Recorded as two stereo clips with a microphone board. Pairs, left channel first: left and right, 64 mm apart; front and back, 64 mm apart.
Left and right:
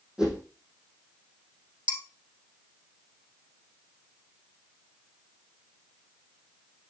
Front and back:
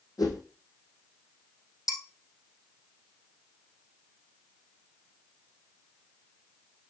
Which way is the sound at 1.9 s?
20° right.